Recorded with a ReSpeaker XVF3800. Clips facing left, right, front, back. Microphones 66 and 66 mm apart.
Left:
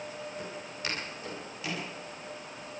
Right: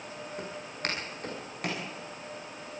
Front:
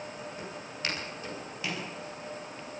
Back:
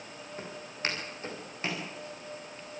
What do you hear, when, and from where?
0.4 s footsteps: 125° right, 9.5 m